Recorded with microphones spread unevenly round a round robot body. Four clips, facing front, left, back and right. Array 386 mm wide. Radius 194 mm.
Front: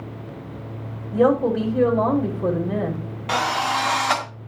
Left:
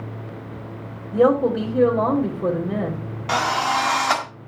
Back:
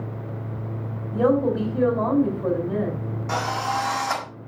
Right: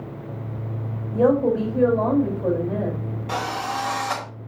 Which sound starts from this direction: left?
A drill, at 3.3 s.